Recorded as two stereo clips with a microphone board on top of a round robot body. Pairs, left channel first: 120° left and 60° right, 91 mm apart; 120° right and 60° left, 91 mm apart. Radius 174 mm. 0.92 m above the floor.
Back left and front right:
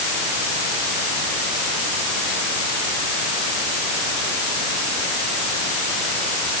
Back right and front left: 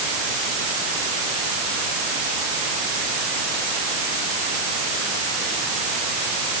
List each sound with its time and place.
Only background noise.